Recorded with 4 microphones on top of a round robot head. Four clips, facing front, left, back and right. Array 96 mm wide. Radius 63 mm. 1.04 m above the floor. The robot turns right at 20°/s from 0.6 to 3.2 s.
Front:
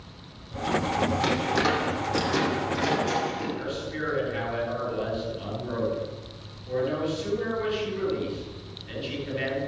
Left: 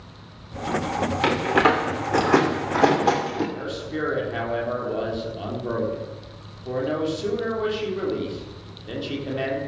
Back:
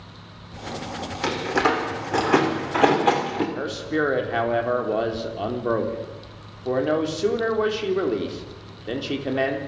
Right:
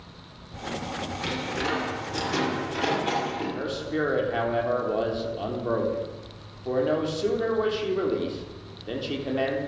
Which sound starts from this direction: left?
A door slam, at 1.2 s.